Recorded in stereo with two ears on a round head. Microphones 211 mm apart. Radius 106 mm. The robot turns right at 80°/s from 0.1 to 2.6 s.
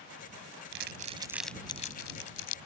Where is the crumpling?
55° right (ahead or behind); by 2.6 s 75° left (ahead or behind).